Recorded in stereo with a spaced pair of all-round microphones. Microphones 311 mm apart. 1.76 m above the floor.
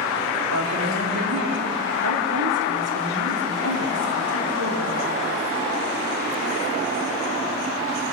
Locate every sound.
0.5 s a woman speaking: 80° right, 4.5 m